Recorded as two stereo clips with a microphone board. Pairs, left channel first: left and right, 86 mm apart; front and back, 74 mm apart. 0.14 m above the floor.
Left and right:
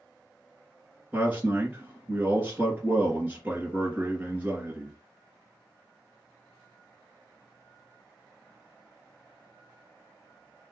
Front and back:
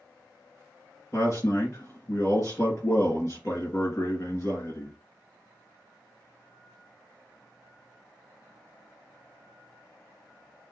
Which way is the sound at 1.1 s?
25° right.